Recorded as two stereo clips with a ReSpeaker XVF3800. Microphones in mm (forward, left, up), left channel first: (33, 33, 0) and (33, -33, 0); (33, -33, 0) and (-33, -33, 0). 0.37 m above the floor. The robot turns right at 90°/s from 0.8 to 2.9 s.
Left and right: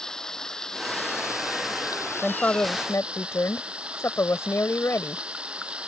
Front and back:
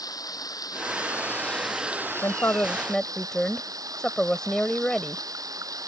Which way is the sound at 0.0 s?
10° left.